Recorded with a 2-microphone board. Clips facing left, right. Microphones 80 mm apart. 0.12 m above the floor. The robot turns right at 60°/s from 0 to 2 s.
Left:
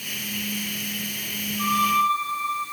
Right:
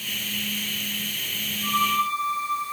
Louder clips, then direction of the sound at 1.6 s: Left 3 dB; 80° left.